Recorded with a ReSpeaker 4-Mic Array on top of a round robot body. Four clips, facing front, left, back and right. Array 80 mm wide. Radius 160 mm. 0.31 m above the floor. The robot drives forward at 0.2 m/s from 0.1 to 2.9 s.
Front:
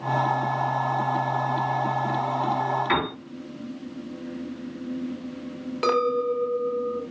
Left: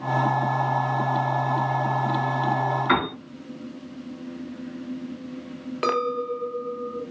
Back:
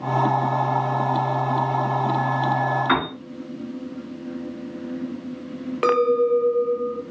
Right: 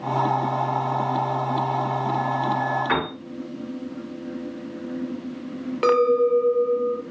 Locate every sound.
2.9 s a piano: 155° left, 3 m
5.8 s a clink: 175° right, 0.9 m